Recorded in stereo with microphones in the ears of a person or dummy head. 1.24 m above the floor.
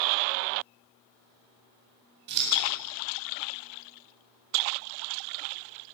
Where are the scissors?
60° right (ahead or behind), 8.5 m.